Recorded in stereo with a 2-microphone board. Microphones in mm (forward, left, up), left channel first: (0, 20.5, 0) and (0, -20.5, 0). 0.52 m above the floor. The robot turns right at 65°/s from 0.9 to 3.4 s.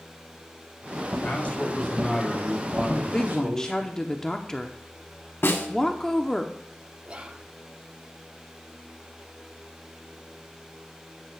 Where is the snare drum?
75° left (ahead or behind), 1.2 m.